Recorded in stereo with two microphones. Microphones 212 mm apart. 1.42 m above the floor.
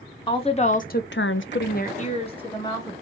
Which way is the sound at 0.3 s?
25° left (ahead or behind).